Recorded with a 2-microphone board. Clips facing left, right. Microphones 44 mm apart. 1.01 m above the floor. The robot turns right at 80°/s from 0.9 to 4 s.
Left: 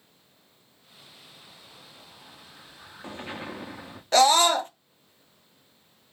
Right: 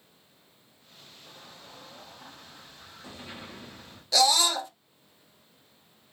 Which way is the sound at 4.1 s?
40° left (ahead or behind).